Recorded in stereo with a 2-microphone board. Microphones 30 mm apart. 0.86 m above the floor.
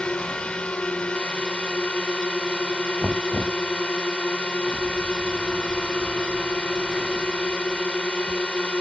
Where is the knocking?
50° left (ahead or behind).